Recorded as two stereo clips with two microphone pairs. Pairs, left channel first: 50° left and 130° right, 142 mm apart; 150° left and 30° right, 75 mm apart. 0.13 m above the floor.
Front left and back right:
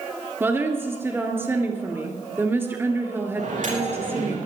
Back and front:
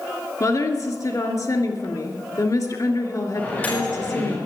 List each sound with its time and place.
0.4 s a woman speaking: 160° left, 2.5 m
3.4 s a microwave: 140° right, 6.5 m